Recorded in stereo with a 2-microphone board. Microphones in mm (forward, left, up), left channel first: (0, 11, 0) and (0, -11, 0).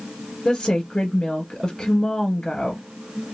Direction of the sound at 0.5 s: 20° left (ahead or behind).